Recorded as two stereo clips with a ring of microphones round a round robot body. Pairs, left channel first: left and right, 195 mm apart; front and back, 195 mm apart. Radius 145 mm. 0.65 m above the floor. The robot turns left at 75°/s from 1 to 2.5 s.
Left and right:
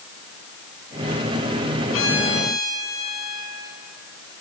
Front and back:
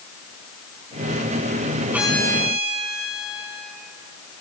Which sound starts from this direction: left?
A violin, at 1.9 s.